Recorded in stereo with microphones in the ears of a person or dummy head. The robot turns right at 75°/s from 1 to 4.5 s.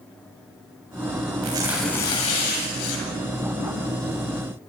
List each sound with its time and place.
1.4 s tearing paper: 30° right, 8 m; by 3.1 s 95° left, 8 m